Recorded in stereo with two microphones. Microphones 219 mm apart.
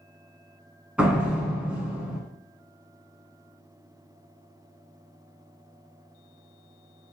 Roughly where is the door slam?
Centre.